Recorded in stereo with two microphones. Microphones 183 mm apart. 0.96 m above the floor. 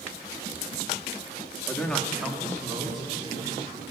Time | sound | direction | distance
1.7 | a man speaking | 15° left (ahead or behind) | 1.3 m